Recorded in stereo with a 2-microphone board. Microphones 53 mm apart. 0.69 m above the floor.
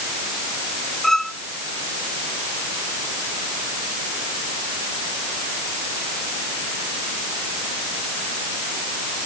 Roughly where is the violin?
Centre.